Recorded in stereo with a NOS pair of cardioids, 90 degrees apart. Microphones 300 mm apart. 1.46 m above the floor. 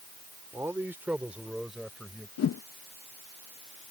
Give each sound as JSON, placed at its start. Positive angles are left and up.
{"t": 0.5, "sound": "a man speaking", "azimuth_deg": -10}
{"t": 2.4, "sound": "a whoosh", "azimuth_deg": 60}